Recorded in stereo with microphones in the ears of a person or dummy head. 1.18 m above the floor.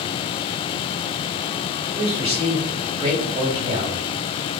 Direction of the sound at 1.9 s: 25° right (ahead or behind).